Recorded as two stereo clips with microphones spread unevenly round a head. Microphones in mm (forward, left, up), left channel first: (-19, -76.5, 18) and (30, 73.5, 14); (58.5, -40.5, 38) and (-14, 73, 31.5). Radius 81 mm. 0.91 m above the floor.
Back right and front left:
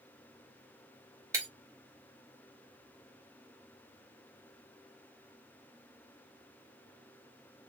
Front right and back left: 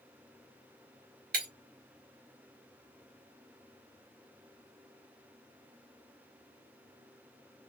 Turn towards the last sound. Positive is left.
turn(degrees=145)